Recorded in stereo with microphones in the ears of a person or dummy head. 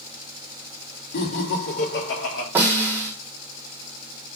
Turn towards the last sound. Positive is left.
turn(degrees=-10)  # may be behind; listen again after turning